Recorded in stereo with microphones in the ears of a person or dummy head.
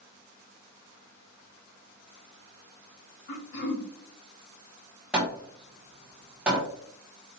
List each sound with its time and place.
3.3 s throat clearing: 70° left (ahead or behind), 2 m
5.1 s hammering: 10° right (ahead or behind), 0.9 m